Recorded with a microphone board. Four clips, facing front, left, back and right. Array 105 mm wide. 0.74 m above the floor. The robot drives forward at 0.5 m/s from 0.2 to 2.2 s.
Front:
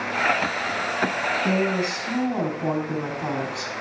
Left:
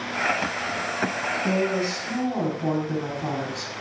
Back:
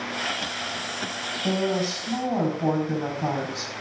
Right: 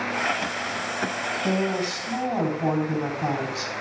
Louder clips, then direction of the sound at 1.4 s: Left 1 dB, back 1 dB; 135° right.